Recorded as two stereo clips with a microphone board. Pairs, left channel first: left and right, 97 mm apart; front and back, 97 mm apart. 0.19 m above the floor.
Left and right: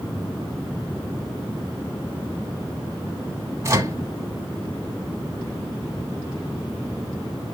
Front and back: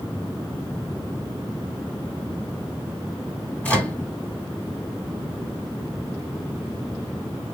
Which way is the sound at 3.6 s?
65° right.